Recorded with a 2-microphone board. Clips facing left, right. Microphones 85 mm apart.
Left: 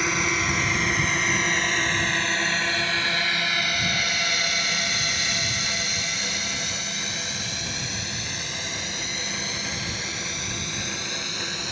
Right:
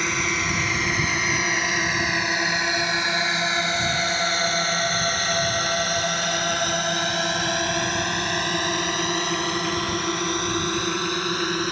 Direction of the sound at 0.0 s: Centre (ahead or behind).